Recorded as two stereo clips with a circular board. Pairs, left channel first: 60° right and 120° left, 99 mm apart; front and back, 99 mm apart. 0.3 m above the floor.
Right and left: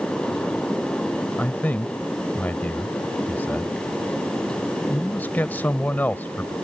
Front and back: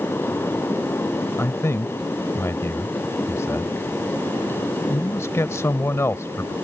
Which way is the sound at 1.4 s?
10° right.